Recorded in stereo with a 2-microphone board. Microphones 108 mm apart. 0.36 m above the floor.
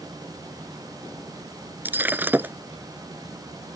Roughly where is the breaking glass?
Centre.